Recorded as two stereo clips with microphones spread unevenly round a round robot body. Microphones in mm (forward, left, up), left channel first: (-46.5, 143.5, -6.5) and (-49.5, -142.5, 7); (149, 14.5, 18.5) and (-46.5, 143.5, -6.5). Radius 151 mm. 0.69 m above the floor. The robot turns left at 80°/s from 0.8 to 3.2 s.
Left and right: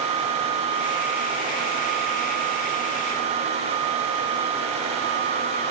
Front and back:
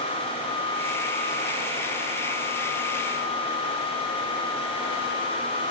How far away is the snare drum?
No snare drum in this recording.